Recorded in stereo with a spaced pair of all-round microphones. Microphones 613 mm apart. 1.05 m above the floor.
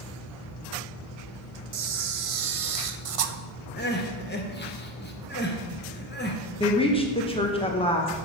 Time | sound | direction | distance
1.7 | a camera shutter | 65° right (ahead or behind) | 0.5 m
3.8 | crying | 15° left (ahead or behind) | 0.7 m
6.6 | a woman speaking | 10° left (ahead or behind) | 0.7 m